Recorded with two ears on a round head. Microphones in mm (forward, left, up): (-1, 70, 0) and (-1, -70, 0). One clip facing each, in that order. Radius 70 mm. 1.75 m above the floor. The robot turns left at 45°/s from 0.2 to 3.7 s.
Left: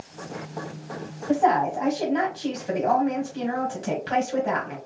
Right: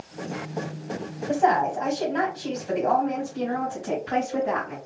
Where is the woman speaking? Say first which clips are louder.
Left 1 dB; 165° right, 1.6 m; by 4.8 s 90° left, 1.6 m.